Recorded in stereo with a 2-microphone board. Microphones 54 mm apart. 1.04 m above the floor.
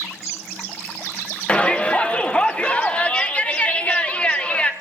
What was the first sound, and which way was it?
A shout, 25° left (ahead or behind).